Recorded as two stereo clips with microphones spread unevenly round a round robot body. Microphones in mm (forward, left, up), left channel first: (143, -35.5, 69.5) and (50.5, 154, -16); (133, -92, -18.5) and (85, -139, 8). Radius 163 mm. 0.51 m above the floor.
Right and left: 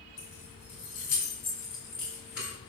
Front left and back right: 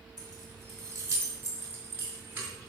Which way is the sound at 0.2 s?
140° right.